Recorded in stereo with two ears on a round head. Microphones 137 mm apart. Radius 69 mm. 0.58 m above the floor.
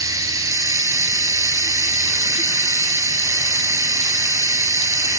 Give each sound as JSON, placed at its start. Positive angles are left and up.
{"t": 0.0, "sound": "running water", "side_deg": -20, "distance_m": 0.9}